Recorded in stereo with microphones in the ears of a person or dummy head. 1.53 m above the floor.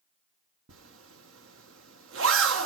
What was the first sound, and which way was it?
A zipper, 85° right.